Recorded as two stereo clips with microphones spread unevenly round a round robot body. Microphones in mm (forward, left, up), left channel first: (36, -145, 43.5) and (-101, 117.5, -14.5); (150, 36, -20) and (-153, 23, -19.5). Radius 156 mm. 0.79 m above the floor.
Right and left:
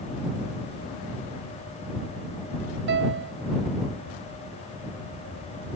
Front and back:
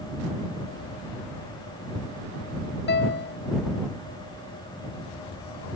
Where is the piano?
60° left.